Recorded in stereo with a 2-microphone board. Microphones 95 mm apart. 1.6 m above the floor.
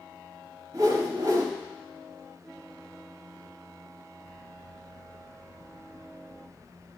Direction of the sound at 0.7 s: 40° right (ahead or behind).